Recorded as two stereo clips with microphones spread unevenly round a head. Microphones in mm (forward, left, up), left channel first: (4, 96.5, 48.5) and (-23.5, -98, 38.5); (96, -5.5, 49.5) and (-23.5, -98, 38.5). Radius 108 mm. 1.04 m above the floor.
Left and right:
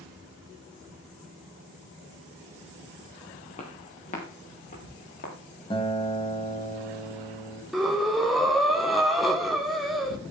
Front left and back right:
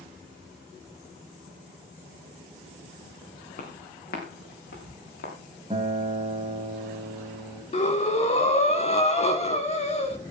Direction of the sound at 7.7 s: 10° right.